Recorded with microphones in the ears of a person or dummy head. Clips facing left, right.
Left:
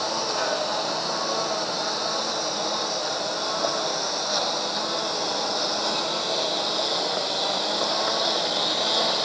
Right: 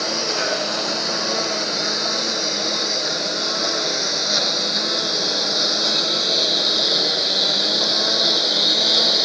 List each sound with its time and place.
0.0 s a lawn mower: 30° right (ahead or behind); by 9.2 s 25° right (ahead or behind)